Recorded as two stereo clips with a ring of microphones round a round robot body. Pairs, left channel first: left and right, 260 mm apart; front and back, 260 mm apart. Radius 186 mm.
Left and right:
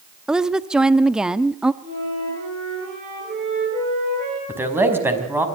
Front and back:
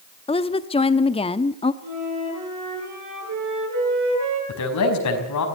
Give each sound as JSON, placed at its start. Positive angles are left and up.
{"t": 0.3, "sound": "a woman speaking", "azimuth_deg": -5, "distance_m": 0.8}
{"t": 1.8, "sound": "a flute", "azimuth_deg": -160, "distance_m": 10.0}
{"t": 4.5, "sound": "a man speaking", "azimuth_deg": -10, "distance_m": 5.0}